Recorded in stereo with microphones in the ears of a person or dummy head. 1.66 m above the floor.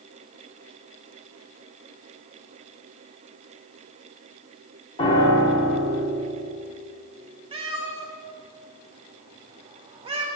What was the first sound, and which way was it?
A piano, 30° left (ahead or behind).